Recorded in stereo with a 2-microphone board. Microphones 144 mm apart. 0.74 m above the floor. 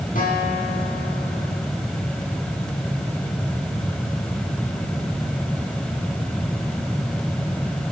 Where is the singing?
I don't hear singing.